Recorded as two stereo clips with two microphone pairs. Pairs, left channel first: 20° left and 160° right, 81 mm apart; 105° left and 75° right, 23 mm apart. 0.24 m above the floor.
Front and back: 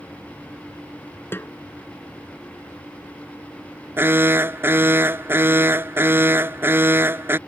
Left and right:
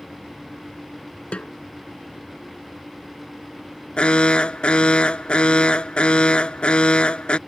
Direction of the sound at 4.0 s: 140° left.